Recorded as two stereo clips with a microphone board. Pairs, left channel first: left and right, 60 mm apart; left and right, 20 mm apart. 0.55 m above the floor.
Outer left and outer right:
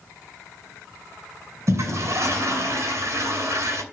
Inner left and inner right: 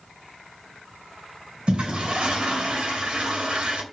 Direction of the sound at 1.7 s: 55° right (ahead or behind).